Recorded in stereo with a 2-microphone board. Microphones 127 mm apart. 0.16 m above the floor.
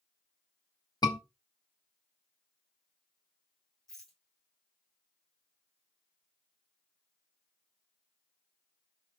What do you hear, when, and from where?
1.0 s a scream: 30° left (ahead or behind), 1.6 m
3.9 s a rattle: 5° left (ahead or behind), 6 m